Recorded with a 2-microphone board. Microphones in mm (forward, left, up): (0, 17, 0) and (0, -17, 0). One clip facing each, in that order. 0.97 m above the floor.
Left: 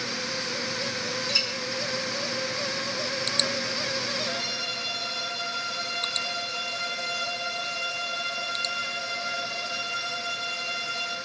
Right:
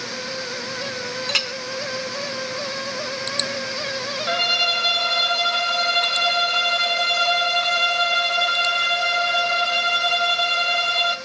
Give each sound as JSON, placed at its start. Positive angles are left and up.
{"t": 1.3, "sound": "a clink", "side_deg": -65, "distance_m": 0.8}
{"t": 4.3, "sound": "a violin", "side_deg": -55, "distance_m": 0.5}